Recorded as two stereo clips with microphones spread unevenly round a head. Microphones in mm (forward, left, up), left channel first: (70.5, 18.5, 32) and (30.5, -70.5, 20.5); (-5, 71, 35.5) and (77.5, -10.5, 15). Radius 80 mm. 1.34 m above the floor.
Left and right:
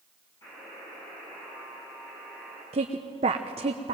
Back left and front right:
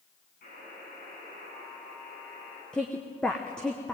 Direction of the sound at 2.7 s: 140° right.